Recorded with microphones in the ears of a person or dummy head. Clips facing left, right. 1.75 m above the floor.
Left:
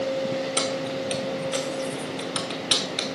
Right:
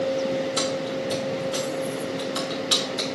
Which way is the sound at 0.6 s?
30° left (ahead or behind).